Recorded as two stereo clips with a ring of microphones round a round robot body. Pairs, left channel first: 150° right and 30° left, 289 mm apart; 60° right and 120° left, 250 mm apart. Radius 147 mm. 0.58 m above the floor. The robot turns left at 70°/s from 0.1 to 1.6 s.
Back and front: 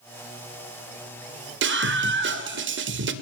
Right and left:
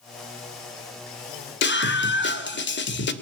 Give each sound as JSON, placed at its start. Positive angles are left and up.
{"t": 1.6, "sound": "a scream", "azimuth_deg": -20, "distance_m": 2.0}